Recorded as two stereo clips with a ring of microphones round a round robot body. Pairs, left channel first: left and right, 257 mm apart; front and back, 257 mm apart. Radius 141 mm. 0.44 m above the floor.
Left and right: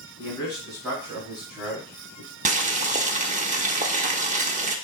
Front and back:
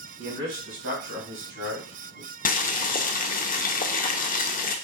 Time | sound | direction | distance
0.2 | a man speaking | 165° right | 3 m
2.5 | boiling | 40° right | 0.6 m